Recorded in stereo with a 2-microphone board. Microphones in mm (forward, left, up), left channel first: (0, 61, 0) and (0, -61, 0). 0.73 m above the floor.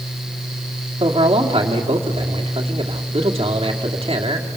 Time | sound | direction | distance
1.0 | a man speaking | 50° right (ahead or behind) | 1.7 m